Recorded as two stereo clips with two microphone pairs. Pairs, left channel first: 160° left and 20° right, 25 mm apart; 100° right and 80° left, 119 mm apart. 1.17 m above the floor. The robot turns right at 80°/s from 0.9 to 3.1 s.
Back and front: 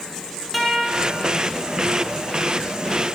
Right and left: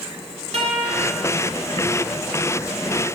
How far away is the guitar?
About 3 m.